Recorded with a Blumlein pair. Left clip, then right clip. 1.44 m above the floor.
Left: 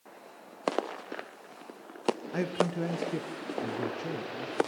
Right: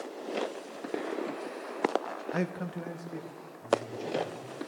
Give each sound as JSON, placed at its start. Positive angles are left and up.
{"t": 2.3, "sound": "a man speaking", "azimuth_deg": -5, "distance_m": 0.6}